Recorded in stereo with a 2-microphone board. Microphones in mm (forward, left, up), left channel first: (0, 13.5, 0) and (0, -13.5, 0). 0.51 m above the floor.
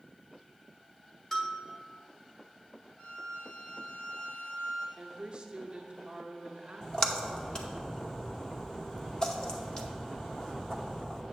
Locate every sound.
1.3 s a bell: 20° left (ahead or behind), 1.3 m
3.0 s a violin: 45° left (ahead or behind), 1.8 m
5.0 s a woman speaking: 35° right (ahead or behind), 0.8 m
6.8 s a splash: 30° left (ahead or behind), 0.8 m